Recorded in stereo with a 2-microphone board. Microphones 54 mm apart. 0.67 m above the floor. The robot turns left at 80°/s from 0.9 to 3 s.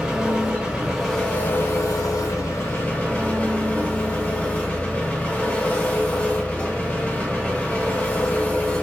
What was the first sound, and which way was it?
An engine running, 165° right.